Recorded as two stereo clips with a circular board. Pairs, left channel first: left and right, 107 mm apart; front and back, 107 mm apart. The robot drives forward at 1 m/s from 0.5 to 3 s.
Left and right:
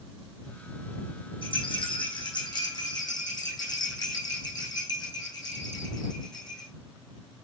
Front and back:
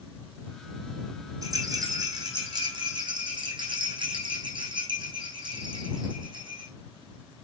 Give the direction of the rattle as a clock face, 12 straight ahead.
8 o'clock.